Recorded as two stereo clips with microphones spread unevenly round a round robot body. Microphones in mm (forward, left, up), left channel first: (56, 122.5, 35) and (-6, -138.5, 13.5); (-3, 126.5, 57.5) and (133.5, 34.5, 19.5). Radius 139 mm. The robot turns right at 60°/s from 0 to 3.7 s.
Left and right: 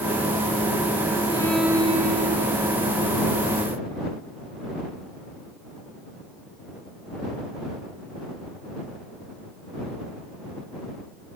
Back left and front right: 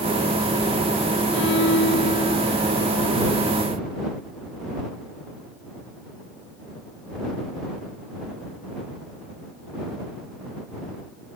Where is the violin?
150° left; by 2.7 s 125° right.